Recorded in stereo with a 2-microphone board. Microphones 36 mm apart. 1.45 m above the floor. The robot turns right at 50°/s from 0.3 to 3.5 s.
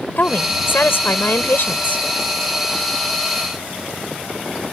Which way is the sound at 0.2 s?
50° left.